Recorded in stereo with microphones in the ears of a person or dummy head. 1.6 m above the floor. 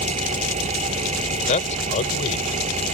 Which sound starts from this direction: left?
A man speaking, at 1.5 s.